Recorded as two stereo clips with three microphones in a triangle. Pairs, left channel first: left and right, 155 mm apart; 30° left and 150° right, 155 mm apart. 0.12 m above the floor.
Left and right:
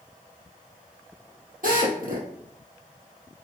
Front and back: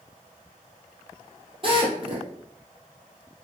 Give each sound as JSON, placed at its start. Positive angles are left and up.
{"t": 1.6, "sound": "a drill", "azimuth_deg": -100, "distance_m": 4.0}